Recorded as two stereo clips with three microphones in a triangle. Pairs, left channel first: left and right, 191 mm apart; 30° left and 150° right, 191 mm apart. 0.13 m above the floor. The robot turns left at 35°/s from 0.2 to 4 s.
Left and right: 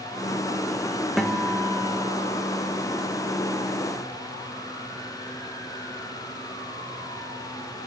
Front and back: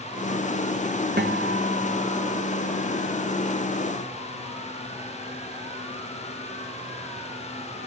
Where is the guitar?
Straight behind, 1.8 m; by 2.2 s 145° left, 1.8 m.